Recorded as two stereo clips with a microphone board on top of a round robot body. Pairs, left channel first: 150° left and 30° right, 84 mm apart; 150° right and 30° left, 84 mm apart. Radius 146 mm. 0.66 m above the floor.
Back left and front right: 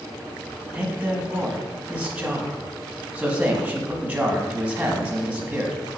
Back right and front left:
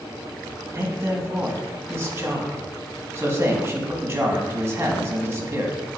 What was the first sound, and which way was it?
A man speaking, 30° left.